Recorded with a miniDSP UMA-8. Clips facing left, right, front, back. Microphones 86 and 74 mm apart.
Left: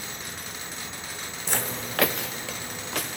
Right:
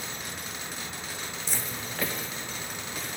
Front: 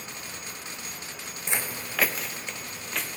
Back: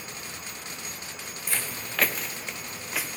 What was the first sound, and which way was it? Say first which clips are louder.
Footsteps: left 9 dB, front 2 dB; 65° left.